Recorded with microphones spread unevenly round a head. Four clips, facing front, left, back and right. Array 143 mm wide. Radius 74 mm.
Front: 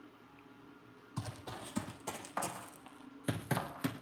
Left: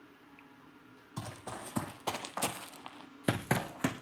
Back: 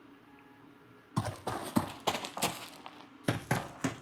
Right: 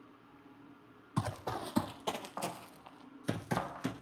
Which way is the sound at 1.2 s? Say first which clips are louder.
Right 6 dB, back 10 dB; 135° right.